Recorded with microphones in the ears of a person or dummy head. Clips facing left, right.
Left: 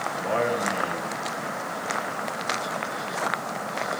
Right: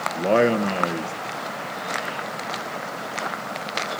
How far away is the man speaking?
About 1.5 m.